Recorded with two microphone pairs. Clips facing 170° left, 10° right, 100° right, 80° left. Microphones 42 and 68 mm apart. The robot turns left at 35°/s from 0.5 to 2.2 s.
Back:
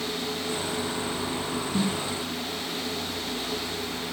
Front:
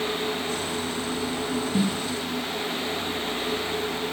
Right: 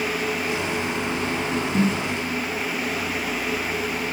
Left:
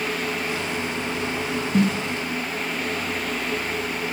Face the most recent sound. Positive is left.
turn(degrees=45)